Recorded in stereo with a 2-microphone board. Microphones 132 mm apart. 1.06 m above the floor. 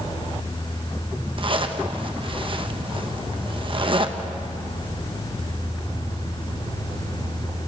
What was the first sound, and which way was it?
A zipper, 40° right (ahead or behind).